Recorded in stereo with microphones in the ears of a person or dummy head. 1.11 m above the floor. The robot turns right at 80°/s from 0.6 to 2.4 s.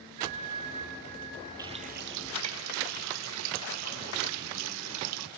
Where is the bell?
145° right, 3 m; by 1.5 s 70° right, 3 m.